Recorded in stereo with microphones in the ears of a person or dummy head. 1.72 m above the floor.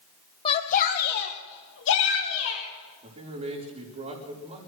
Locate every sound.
0.5 s a shout: 30° left (ahead or behind), 0.9 m; by 2.6 s 75° left (ahead or behind), 2.5 m
3.0 s a man speaking: 30° right (ahead or behind), 4 m